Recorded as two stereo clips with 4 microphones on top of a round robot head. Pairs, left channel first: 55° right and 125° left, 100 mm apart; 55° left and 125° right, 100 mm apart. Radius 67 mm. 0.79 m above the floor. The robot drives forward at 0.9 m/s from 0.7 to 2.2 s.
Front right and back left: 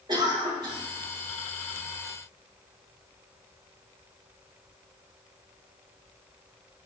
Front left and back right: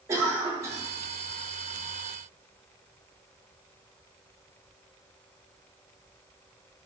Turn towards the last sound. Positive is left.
turn(degrees=175)